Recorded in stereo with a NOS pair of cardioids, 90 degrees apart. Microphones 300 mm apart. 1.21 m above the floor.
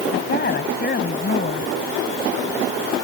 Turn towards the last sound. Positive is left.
turn(degrees=35)